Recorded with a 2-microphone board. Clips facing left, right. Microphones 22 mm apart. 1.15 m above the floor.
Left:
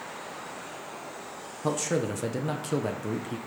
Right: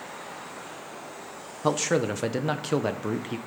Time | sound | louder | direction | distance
1.6 | a man speaking | right 4 dB | 30° right (ahead or behind) | 0.6 m